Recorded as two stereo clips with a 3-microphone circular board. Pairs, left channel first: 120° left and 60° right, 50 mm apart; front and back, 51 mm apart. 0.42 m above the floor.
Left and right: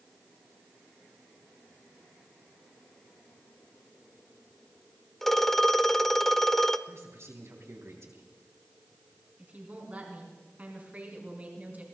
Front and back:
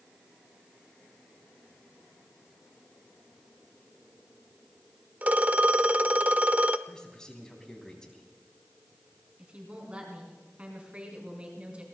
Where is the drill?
No drill in this recording.